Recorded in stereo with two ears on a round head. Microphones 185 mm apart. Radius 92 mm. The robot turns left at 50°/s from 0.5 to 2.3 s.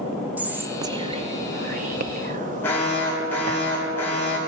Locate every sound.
0.4 s whispering: 10° right (ahead or behind), 0.6 m; by 3.6 s 40° right (ahead or behind), 0.6 m
2.6 s an alarm: 10° left (ahead or behind), 3 m